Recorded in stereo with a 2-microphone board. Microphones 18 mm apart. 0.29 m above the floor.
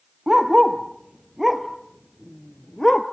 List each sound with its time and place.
0.3 s a dog barking: 35° right (ahead or behind), 2 m; by 3.0 s 25° left (ahead or behind), 1.7 m